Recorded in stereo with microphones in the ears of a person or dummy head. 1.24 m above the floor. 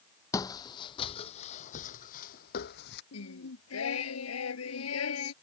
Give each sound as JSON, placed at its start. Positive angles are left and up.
{"t": 0.3, "sound": "footsteps", "side_deg": 20}
{"t": 3.1, "sound": "singing", "side_deg": 75}